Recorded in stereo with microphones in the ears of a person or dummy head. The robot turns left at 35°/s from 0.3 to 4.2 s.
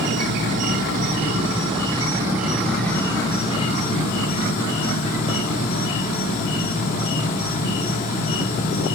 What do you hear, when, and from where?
0.0 s an insect: 100° right, 0.8 m; by 9.0 s 125° left, 0.8 m